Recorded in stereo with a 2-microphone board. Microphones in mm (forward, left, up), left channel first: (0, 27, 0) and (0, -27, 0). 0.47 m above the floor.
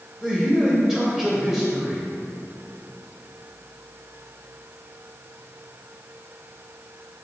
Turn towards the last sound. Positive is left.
turn(degrees=-10)  # may be behind; listen again after turning